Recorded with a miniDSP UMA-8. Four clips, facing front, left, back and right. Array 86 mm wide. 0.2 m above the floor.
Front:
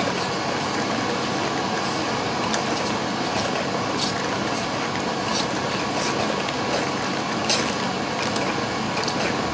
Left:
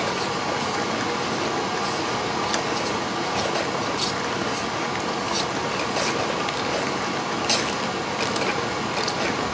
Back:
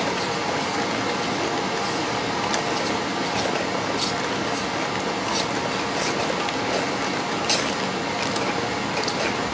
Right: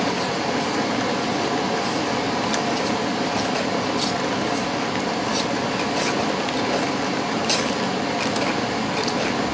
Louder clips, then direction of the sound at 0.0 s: Right 2 dB, even; 90° right.